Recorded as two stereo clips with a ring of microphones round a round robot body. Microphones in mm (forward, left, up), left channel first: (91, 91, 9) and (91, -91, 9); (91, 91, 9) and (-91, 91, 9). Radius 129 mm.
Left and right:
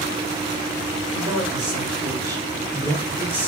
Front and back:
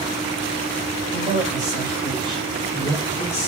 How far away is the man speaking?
About 1.6 m.